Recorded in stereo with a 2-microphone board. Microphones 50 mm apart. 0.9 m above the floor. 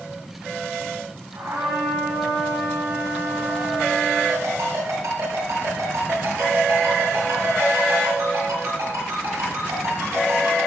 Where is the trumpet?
75° right (ahead or behind), 9 m.